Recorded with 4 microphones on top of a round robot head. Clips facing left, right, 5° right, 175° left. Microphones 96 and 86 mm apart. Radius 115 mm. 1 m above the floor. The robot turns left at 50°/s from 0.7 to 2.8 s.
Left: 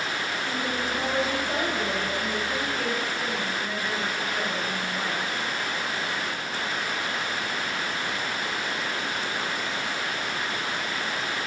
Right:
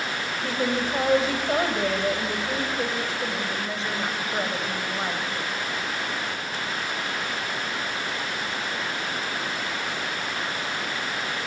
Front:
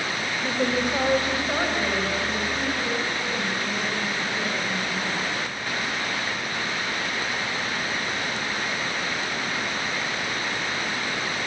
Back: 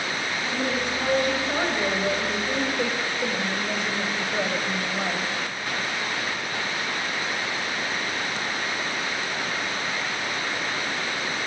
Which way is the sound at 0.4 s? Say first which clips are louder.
Right 6 dB, front 4 dB; 50° right.